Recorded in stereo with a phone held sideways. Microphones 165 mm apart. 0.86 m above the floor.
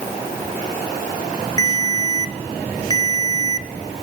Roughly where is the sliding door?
No sliding door in this recording.